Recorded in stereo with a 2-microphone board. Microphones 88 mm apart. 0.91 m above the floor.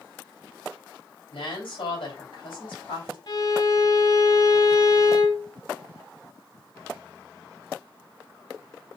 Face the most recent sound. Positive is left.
turn(degrees=50)  # may be behind; listen again after turning